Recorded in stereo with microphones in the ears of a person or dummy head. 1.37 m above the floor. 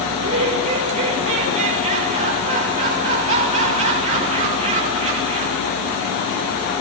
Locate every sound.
0.1 s laughter: 35° right (ahead or behind), 5.5 m